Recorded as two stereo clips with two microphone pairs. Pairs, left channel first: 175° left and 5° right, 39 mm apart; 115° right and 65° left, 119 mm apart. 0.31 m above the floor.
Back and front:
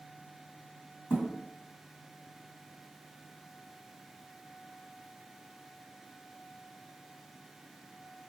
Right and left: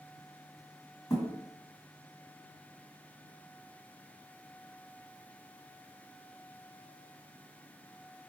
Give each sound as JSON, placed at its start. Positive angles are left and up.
{"t": 1.1, "sound": "a thud", "azimuth_deg": 175, "distance_m": 1.3}